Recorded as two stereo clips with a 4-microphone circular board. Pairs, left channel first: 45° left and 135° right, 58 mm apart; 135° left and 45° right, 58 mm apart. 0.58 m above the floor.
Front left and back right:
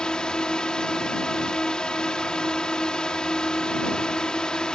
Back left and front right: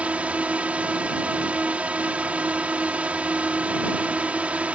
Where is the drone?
15° right.